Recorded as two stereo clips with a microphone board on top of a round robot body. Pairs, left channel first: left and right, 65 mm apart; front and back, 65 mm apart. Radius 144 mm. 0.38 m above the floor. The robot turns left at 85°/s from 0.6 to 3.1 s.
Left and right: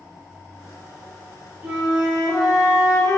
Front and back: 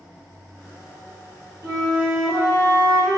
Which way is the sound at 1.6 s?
160° right.